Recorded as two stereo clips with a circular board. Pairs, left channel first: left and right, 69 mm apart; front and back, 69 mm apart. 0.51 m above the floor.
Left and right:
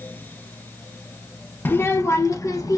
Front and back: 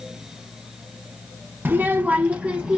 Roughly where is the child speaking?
Behind left.